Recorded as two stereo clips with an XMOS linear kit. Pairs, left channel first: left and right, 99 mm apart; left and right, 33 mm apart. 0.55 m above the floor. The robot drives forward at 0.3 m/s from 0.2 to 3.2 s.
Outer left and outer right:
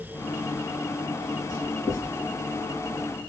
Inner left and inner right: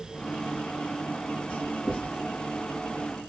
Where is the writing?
35° left (ahead or behind), 2.5 m.